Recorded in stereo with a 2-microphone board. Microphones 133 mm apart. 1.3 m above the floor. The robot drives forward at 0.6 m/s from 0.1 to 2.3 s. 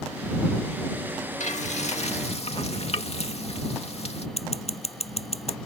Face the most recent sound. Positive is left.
turn(degrees=55)  # may be behind; listen again after turning